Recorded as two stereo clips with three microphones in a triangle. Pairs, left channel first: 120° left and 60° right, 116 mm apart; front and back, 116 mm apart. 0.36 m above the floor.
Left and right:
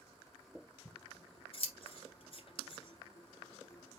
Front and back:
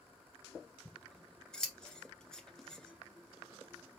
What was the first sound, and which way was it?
Scissors, 85° left.